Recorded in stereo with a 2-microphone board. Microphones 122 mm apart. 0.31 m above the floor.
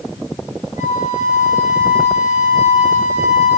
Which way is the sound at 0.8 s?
75° left (ahead or behind).